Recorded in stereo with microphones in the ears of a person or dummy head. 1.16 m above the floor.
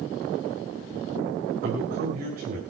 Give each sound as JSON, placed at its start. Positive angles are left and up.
{"t": 1.6, "sound": "a man speaking", "side_deg": -50, "distance_m": 6.5}